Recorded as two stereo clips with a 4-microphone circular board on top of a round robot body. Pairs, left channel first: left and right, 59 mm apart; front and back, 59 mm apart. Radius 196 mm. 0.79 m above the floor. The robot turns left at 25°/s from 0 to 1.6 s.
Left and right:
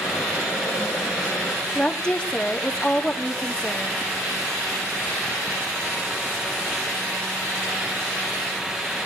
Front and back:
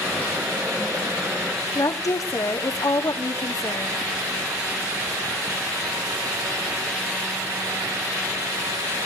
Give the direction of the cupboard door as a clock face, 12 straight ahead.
I don't hear a cupboard door.